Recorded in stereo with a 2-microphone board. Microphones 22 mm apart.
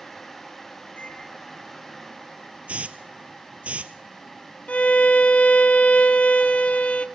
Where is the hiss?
70° right (ahead or behind), 0.6 m.